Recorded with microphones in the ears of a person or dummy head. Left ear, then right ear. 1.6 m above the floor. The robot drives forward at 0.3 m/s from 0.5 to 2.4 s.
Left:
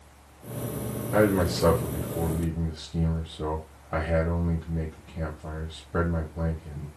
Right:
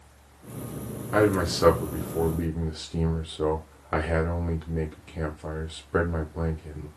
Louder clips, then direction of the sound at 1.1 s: Even; 40° right (ahead or behind).